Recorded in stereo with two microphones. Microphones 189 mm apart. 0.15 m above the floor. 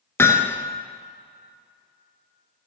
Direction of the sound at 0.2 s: 15° left (ahead or behind).